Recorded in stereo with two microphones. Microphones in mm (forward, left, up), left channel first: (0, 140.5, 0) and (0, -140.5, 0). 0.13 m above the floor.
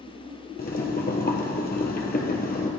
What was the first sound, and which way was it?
Boiling, 35° left (ahead or behind).